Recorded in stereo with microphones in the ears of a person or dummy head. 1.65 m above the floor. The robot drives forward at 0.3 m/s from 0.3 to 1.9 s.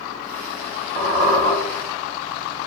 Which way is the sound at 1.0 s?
20° right (ahead or behind).